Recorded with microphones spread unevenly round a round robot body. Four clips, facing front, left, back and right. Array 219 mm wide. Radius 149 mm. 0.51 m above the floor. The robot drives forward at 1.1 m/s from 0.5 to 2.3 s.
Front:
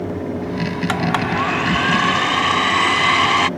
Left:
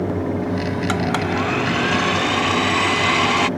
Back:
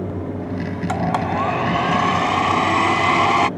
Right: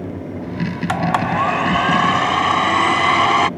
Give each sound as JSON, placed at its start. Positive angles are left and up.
{"t": 0.9, "sound": "a blender", "azimuth_deg": -120}